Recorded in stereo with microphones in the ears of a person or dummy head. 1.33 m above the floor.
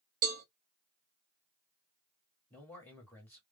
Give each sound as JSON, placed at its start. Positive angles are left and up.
{"t": 0.2, "sound": "a cowbell", "side_deg": -50, "distance_m": 0.9}
{"t": 2.5, "sound": "a man speaking", "side_deg": 10, "distance_m": 1.5}